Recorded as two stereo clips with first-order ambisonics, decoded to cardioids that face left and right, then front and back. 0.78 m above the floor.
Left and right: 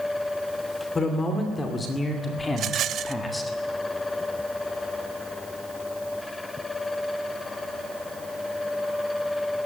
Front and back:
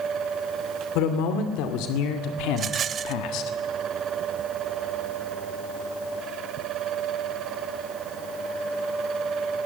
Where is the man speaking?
15° left, 2.5 m; by 3.5 s 5° left, 1.3 m.